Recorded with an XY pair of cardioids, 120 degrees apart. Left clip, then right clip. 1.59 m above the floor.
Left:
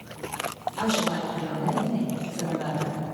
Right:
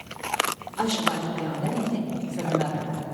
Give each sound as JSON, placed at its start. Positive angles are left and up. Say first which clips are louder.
{"t": 0.8, "sound": "a woman speaking", "louder": "right 1 dB", "azimuth_deg": -50, "distance_m": 4.5}